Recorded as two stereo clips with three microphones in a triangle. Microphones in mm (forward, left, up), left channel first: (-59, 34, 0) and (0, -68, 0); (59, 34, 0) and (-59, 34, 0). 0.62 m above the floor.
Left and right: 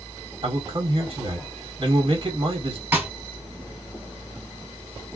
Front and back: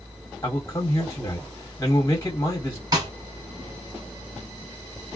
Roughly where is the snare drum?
Behind right.